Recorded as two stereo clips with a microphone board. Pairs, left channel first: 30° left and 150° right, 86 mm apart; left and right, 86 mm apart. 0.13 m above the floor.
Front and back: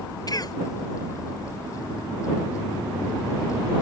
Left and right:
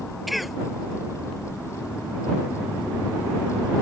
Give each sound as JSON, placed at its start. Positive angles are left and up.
{"t": 0.3, "sound": "a cough", "azimuth_deg": 0}